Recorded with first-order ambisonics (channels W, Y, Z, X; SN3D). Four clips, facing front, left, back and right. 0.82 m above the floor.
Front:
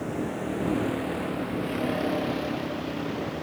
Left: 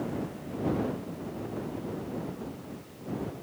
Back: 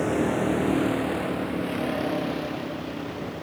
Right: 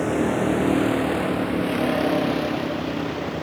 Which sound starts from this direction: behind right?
A vehicle, at 0.0 s.